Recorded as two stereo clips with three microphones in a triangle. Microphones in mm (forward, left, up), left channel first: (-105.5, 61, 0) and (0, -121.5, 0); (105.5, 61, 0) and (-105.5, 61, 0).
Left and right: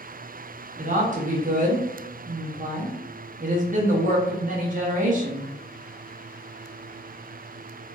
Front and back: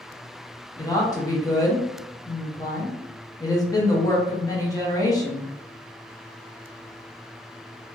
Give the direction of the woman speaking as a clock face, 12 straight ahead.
2 o'clock.